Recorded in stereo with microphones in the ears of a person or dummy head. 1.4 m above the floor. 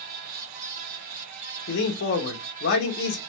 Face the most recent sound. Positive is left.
turn(degrees=55)  # may be behind; listen again after turning